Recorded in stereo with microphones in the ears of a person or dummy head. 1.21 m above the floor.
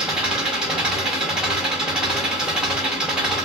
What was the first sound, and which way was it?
An engine running, 5° right (ahead or behind).